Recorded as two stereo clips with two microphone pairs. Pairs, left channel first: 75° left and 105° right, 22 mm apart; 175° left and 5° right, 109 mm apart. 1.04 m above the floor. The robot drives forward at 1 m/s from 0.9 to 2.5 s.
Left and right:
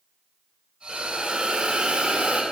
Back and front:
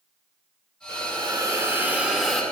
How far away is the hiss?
About 2.0 m.